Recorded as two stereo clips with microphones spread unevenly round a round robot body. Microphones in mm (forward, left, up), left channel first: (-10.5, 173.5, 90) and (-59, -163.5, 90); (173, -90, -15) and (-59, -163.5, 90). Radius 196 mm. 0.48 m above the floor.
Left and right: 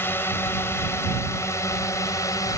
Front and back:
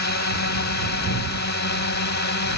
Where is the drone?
Straight ahead.